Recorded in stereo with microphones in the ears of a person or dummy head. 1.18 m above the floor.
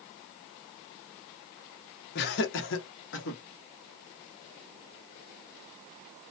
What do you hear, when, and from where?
2.1 s laughter: 50° left (ahead or behind), 0.8 m; by 3.4 s 60° left (ahead or behind), 1.2 m